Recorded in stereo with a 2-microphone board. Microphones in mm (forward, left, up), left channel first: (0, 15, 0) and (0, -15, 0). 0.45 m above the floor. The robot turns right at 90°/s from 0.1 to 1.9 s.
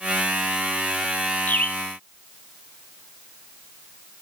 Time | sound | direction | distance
1.5 | a bird | 100° left | 0.9 m